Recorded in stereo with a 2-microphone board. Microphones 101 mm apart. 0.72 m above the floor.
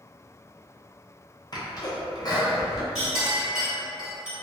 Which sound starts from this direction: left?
A sneeze, at 1.5 s.